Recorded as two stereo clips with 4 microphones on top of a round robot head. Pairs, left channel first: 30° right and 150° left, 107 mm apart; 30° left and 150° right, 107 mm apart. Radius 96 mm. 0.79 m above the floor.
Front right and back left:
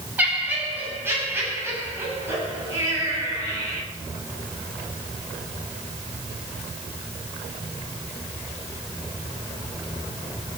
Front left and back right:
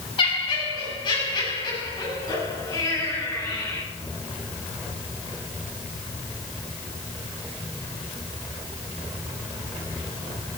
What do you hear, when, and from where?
0.2 s laughter: 75° left, 7 m; by 3.8 s 90° left, 10 m